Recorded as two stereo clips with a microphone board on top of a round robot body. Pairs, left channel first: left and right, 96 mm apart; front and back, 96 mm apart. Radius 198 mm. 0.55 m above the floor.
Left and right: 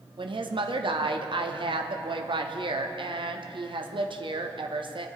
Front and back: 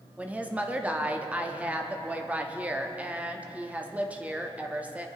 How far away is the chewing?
No chewing in this recording.